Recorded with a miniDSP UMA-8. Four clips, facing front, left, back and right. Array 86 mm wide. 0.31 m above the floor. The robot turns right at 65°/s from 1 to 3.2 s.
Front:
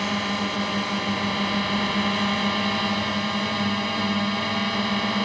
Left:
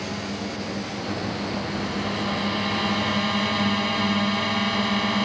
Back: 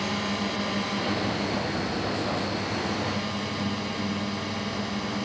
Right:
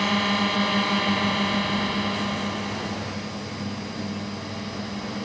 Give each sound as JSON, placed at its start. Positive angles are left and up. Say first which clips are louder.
{"t": 0.0, "sound": "a drone", "louder": "right 7 dB, front 3 dB", "azimuth_deg": -70}